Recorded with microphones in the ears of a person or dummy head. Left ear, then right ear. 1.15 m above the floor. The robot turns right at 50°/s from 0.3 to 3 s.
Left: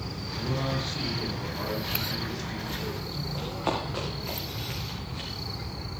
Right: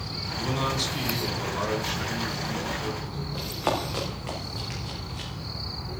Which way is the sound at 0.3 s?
105° right.